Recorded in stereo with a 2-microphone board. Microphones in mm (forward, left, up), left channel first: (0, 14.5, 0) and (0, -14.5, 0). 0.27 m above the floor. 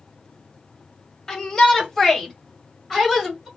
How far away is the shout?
About 1.8 m.